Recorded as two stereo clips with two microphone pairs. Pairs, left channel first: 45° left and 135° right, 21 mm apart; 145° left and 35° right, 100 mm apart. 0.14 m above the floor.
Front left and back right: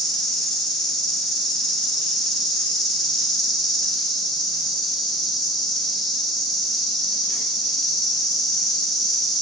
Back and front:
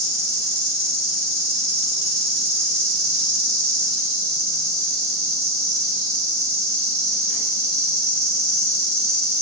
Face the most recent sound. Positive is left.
turn(degrees=-30)